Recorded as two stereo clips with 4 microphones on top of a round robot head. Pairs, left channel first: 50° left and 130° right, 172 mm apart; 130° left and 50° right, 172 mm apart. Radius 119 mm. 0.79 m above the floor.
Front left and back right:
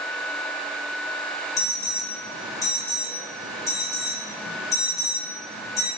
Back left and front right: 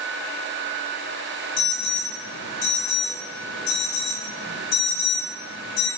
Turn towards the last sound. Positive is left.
turn(degrees=125)